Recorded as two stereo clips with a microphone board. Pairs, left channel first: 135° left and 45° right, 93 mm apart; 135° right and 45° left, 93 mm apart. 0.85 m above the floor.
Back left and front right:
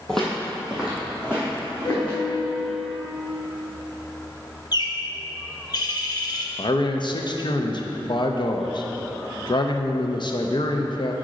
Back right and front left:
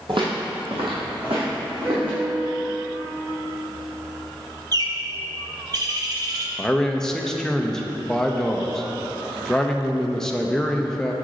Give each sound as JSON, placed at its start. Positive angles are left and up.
{"t": 0.1, "sound": "footsteps", "azimuth_deg": 50, "distance_m": 1.7}
{"t": 1.9, "sound": "a piano", "azimuth_deg": 125, "distance_m": 1.6}
{"t": 4.7, "sound": "a bird", "azimuth_deg": 90, "distance_m": 0.6}
{"t": 6.6, "sound": "a man speaking", "azimuth_deg": 145, "distance_m": 0.5}